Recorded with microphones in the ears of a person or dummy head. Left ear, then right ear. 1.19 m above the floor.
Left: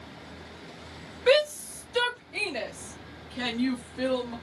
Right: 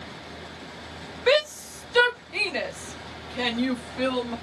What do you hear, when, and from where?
1.3 s a shout: 10° right (ahead or behind), 1.0 m; by 4.3 s 55° right (ahead or behind), 3 m